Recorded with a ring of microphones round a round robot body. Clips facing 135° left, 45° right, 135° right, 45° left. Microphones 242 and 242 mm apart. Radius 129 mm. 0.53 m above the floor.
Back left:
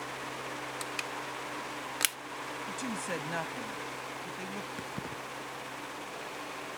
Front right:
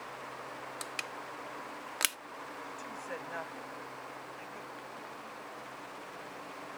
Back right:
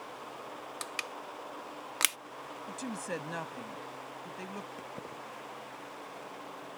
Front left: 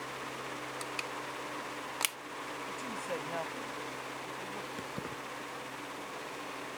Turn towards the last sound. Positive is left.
turn(degrees=110)